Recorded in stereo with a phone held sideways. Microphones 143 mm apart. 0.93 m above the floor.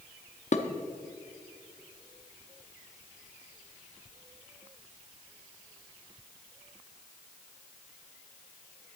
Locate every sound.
0.5 s dishes clattering: 55° left (ahead or behind), 0.8 m